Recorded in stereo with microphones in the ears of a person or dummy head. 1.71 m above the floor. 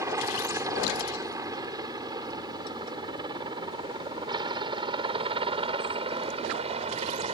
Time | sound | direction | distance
0.0 | a helicopter | 10° right (ahead or behind) | ?